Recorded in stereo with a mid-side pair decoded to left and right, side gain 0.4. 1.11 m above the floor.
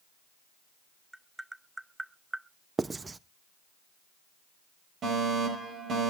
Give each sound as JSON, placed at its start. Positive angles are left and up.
{"t": 1.1, "sound": "tapping", "azimuth_deg": -15, "distance_m": 0.8}
{"t": 2.8, "sound": "writing", "azimuth_deg": -30, "distance_m": 0.6}
{"t": 5.0, "sound": "a fire alarm", "azimuth_deg": -65, "distance_m": 8.5}